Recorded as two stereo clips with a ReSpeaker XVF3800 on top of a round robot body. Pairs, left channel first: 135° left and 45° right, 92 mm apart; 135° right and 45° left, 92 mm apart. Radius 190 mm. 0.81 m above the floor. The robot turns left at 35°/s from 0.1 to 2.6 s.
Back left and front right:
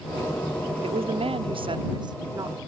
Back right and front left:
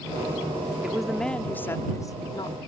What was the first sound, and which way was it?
A woman speaking, 40° right.